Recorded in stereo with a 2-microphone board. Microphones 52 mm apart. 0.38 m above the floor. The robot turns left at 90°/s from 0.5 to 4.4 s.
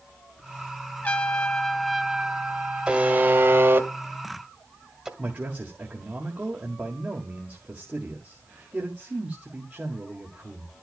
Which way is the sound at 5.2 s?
35° right (ahead or behind).